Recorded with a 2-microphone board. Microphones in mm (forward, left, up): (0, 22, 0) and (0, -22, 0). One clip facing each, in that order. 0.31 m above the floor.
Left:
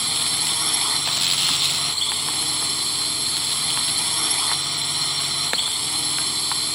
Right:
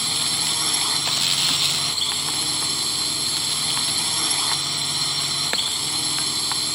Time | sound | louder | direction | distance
0.0 | a drone | even | centre (ahead or behind) | ?